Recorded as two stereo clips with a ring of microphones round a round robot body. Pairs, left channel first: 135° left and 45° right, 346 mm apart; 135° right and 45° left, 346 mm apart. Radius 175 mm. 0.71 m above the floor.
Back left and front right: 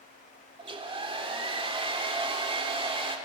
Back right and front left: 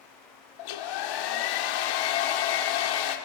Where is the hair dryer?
120° right, 1.8 m.